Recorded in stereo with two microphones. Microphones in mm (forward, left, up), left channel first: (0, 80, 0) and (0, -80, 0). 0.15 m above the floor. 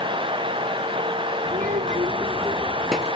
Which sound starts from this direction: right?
A child speaking, at 1.5 s.